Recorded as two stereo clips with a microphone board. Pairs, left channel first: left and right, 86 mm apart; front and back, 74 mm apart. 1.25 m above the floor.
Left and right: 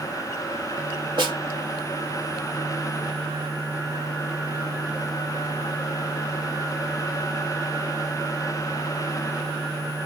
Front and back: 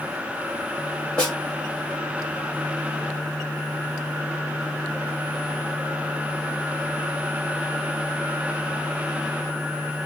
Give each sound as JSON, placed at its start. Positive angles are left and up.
{"t": 1.2, "sound": "a snare drum", "azimuth_deg": -75, "distance_m": 2.5}